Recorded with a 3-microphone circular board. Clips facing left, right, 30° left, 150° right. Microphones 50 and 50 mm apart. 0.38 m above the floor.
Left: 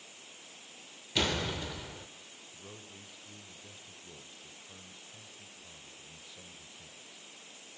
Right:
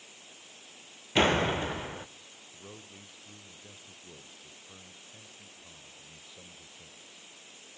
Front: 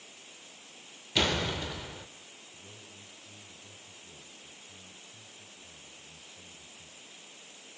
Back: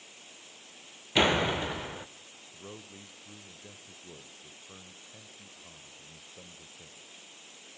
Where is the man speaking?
165° right, 1.2 m.